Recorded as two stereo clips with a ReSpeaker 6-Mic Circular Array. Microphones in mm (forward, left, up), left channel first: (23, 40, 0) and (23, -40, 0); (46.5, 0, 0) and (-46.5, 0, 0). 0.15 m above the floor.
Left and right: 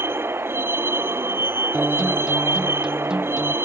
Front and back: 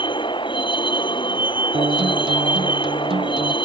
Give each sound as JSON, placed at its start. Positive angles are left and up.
{"t": 0.0, "sound": "a vehicle", "azimuth_deg": -30}
{"t": 1.7, "sound": "a guitar", "azimuth_deg": -170}